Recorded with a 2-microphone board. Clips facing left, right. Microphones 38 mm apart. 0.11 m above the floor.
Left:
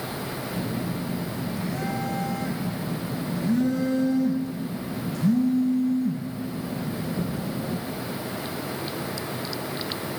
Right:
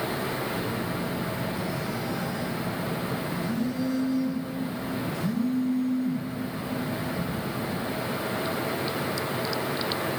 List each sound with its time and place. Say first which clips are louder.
0.5 s a phone buzzing: even; 55° left (ahead or behind), 4 m